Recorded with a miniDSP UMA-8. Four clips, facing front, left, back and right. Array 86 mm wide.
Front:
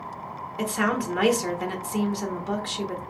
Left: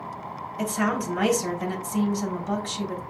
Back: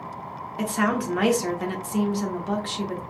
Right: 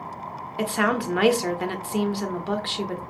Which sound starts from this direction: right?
A woman speaking, at 0.6 s.